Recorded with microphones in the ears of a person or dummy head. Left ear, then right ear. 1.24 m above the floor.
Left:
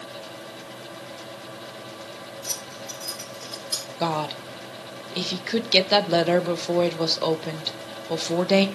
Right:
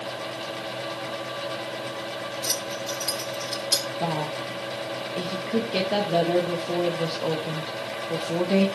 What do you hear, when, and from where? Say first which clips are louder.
2.4 s keys jangling: right 4 dB; 40° right (ahead or behind), 4 m; by 3.9 s 30° right (ahead or behind), 3.5 m
4.0 s a woman speaking: left 1 dB; 50° left (ahead or behind), 1.2 m